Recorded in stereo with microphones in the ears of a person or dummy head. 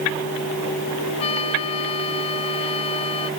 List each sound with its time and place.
1.2 s a trumpet: 30° left (ahead or behind)